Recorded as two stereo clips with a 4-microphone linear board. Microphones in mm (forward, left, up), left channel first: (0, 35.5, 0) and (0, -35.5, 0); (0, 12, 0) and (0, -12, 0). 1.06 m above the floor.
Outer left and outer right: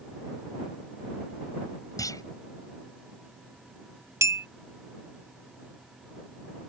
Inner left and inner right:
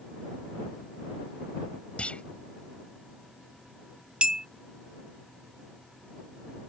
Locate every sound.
2.0 s a clunk: 60° left (ahead or behind)
4.2 s a clink: 45° right (ahead or behind)